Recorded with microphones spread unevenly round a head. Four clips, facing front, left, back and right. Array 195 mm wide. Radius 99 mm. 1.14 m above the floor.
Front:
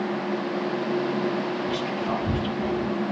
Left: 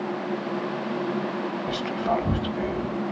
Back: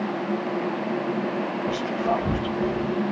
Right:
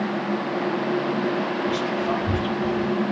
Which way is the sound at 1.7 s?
150° left.